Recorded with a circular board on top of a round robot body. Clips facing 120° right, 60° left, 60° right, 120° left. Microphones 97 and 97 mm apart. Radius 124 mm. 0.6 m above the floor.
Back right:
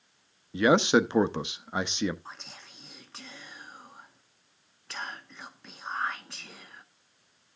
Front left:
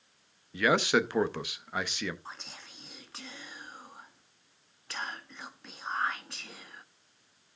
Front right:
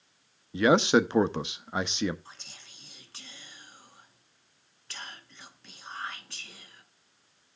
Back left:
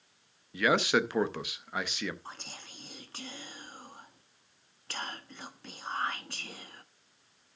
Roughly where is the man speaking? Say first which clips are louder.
Back right 4 dB, front right 5 dB; right.